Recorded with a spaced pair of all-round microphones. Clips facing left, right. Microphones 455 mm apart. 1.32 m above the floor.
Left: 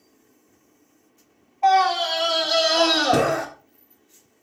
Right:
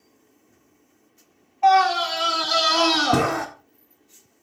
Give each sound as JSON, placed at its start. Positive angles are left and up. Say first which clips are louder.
{"t": 1.6, "sound": "a scream", "louder": "right 1 dB", "side_deg": -30, "distance_m": 0.9}